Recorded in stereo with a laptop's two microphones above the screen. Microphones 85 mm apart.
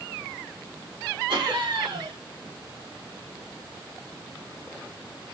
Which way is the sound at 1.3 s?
70° right (ahead or behind).